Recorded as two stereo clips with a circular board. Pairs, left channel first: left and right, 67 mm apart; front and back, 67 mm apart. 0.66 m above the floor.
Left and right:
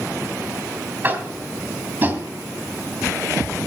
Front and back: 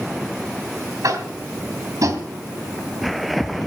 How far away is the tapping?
About 2.5 m.